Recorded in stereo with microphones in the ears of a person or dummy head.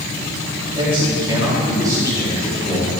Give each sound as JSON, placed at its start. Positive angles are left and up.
{"t": 0.7, "sound": "a man speaking", "side_deg": -30, "distance_m": 4.0}